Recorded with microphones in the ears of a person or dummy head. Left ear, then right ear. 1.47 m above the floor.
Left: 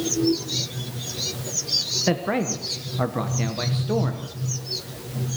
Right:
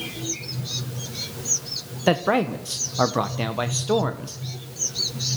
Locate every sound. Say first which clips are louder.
2.1 s a man speaking: right 3 dB; 35° right (ahead or behind), 1.1 m